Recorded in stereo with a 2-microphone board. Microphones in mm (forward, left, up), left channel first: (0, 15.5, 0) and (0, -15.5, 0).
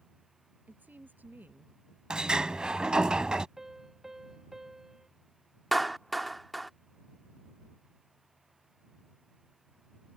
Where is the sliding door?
25° right (ahead or behind).